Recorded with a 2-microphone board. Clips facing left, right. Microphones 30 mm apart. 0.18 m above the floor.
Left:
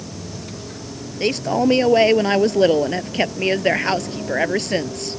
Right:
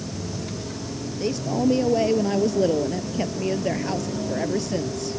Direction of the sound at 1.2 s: 70° left (ahead or behind).